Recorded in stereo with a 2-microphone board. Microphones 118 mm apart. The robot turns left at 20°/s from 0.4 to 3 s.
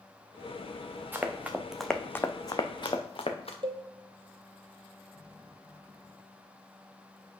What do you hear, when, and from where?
1.1 s running footsteps: 15° right (ahead or behind), 0.9 m; by 3.5 s 60° left (ahead or behind), 1.2 m
3.6 s a cowbell: 50° right (ahead or behind), 0.9 m